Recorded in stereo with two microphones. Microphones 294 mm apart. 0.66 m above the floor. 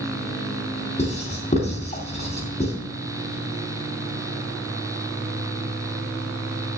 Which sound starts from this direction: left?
Writing, at 1.0 s.